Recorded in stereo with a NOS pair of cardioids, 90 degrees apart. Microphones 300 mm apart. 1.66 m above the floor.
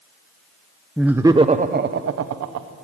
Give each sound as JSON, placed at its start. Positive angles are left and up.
{"t": 1.0, "sound": "laughter", "azimuth_deg": 0, "distance_m": 1.1}